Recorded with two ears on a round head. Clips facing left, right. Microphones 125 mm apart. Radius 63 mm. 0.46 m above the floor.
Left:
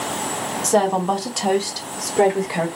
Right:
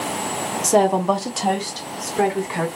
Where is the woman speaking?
15° right (ahead or behind), 1.0 m; by 2.7 s 25° left (ahead or behind), 1.2 m.